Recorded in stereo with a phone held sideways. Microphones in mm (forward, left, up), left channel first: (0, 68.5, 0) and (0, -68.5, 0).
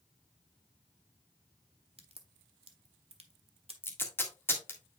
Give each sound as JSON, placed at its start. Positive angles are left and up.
{"t": 2.0, "sound": "a crack", "side_deg": -45, "distance_m": 1.2}
{"t": 3.8, "sound": "tape being pulled", "side_deg": 15, "distance_m": 1.6}